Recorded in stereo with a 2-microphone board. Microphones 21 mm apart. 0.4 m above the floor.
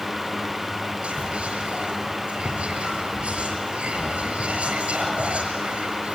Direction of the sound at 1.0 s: 65° right (ahead or behind).